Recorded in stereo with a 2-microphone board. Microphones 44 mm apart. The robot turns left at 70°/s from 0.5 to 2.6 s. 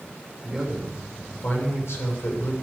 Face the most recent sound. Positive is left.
turn(degrees=55)